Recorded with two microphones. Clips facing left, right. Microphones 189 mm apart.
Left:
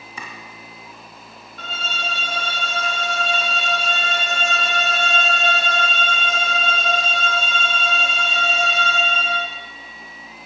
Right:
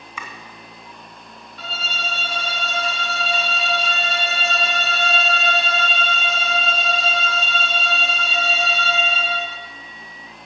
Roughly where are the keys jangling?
I don't hear keys jangling.